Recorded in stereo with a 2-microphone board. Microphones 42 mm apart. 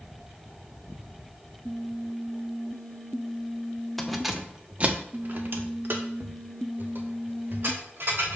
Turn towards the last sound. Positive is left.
turn(degrees=-70)  # may be behind; listen again after turning